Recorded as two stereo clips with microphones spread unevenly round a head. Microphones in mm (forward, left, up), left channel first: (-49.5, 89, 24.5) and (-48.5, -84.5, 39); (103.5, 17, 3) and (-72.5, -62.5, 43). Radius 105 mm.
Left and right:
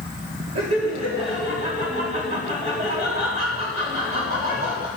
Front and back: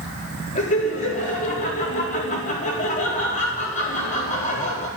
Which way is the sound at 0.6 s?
30° right.